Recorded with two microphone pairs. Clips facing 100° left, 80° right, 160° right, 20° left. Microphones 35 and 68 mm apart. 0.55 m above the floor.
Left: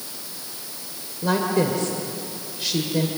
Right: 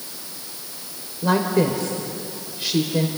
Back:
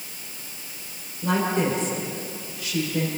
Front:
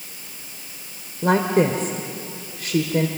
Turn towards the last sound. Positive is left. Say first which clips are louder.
# right 2 dB, front 5 dB
turn(degrees=0)